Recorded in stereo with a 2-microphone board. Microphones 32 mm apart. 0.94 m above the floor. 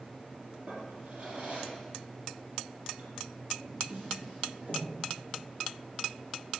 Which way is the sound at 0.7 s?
50° right (ahead or behind).